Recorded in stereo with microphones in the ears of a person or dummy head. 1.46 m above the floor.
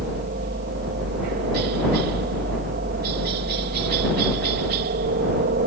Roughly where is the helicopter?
Right.